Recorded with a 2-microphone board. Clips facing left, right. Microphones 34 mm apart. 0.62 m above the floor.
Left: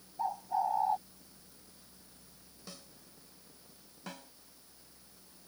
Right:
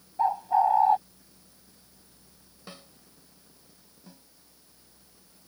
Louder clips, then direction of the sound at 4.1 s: Left 8 dB; 75° left (ahead or behind).